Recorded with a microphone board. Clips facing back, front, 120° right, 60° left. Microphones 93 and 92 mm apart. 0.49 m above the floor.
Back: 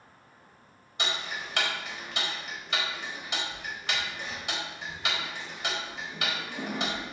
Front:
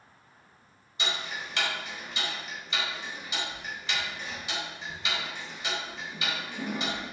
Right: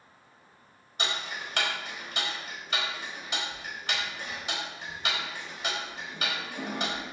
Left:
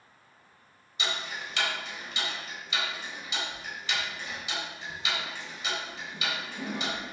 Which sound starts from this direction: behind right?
Ticking, at 1.0 s.